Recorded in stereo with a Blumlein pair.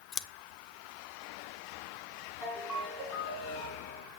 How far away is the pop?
No pop in this recording.